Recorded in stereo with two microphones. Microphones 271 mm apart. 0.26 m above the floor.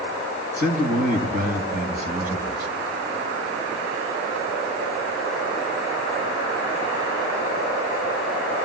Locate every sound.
0.6 s a man speaking: 30° right (ahead or behind), 2.5 m